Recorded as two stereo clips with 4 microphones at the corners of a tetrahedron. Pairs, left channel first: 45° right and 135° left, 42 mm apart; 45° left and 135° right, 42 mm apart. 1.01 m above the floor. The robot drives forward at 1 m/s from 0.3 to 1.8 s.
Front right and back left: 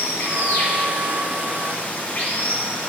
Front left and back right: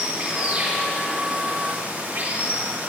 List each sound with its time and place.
0.0 s running water: 70° right, 4.5 m; by 2.9 s 90° right, 4.5 m